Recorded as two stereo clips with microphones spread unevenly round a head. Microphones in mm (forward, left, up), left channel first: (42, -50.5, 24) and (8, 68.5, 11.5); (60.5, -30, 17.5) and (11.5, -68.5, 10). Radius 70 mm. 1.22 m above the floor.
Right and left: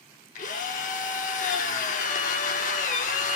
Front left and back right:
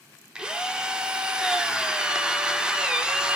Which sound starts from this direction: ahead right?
A drill, at 0.3 s.